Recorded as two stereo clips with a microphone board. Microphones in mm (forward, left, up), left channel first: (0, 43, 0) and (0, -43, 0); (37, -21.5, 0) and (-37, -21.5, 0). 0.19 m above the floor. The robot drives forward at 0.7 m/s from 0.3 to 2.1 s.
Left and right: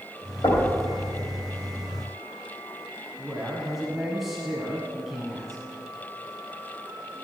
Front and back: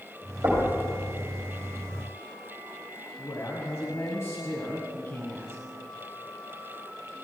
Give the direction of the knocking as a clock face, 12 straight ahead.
8 o'clock.